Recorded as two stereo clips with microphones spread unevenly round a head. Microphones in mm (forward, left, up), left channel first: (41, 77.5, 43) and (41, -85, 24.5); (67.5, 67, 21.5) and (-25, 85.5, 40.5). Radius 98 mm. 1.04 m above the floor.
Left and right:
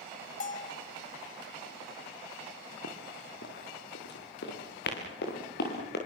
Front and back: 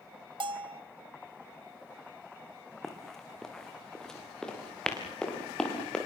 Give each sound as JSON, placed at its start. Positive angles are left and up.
{"t": 0.4, "sound": "a bell", "azimuth_deg": 140, "distance_m": 1.6}
{"t": 2.8, "sound": "running footsteps", "azimuth_deg": 80, "distance_m": 4.0}